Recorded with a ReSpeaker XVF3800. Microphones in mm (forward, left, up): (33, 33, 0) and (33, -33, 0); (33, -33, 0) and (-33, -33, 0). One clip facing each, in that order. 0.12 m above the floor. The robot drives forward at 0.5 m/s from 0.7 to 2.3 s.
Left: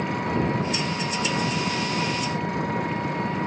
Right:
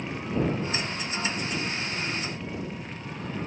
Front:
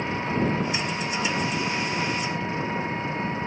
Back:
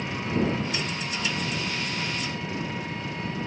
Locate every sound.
0.0 s an engine running: 60° left